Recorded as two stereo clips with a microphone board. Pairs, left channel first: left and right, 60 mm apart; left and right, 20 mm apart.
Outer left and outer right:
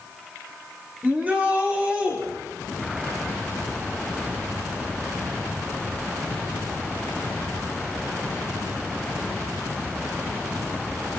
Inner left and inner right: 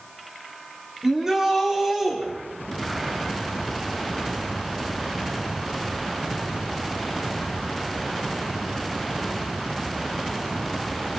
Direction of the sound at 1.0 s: 25° right (ahead or behind).